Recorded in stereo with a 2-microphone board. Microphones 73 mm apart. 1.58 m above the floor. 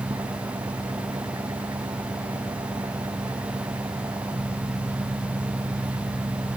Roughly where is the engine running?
Right.